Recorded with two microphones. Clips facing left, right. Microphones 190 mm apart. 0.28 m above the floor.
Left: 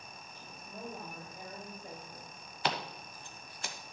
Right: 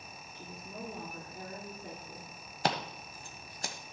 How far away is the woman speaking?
About 3.5 m.